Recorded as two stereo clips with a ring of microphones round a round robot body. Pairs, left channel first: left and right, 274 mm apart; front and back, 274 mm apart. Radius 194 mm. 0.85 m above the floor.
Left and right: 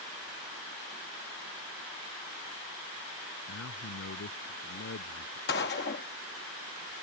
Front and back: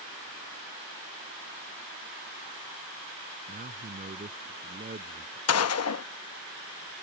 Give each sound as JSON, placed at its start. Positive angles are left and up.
{"t": 3.5, "sound": "a man speaking", "azimuth_deg": 125}
{"t": 5.5, "sound": "a gunshot", "azimuth_deg": 30}